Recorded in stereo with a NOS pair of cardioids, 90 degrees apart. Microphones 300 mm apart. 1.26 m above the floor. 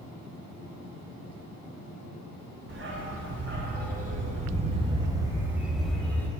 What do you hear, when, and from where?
2.7 s a dog barking: 40° right, 3.5 m; by 6.3 s 10° left, 2.5 m